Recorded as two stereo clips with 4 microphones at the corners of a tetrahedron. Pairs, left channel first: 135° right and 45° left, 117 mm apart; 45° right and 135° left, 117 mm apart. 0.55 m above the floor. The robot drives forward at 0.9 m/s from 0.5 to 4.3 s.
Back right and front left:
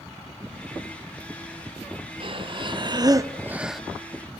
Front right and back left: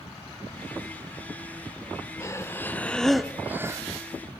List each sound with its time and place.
2.2 s breathing: 15° left, 1.4 m; by 3.8 s 135° left, 0.9 m